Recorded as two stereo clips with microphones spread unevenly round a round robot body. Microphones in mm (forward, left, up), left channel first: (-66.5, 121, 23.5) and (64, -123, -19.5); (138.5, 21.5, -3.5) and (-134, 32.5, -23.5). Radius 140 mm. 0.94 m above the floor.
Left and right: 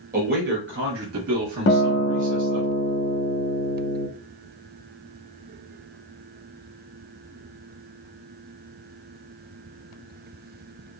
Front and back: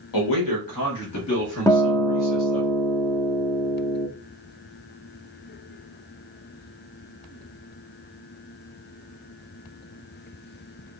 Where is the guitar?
75° left, 0.6 m.